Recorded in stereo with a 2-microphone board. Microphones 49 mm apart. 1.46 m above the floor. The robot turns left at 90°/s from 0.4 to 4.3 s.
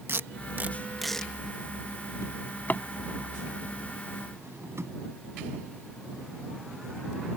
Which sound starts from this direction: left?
A drawer, at 2.2 s.